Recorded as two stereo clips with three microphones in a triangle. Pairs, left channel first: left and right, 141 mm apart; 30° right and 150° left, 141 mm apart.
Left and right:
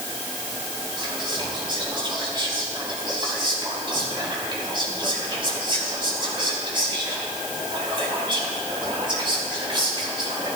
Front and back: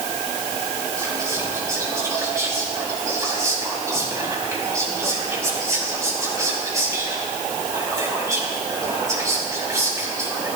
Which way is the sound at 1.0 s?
140° right.